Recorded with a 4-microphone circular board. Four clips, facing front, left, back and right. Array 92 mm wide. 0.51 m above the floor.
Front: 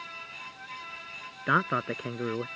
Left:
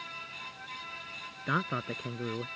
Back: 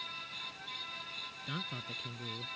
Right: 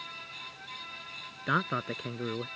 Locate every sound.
1.5 s a man speaking: 10° right